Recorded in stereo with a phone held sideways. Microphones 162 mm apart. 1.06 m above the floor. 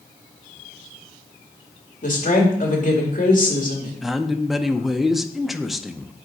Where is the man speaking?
Centre (ahead or behind), 0.6 m.